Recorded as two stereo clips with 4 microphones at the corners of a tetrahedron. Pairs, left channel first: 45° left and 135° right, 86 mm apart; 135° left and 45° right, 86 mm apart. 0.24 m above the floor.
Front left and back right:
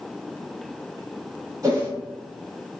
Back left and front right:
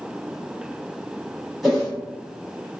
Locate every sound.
1.6 s a whoosh: 135° right, 1.3 m